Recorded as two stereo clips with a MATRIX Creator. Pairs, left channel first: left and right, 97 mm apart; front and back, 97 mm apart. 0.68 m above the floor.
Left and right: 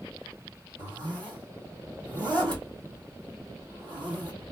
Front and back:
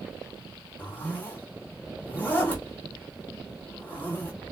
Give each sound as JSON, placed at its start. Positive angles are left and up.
{"t": 0.8, "sound": "a zipper", "azimuth_deg": -65, "distance_m": 2.5}